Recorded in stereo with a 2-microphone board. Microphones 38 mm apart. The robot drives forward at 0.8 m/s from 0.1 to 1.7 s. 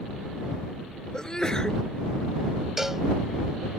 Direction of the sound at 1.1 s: 20° left (ahead or behind).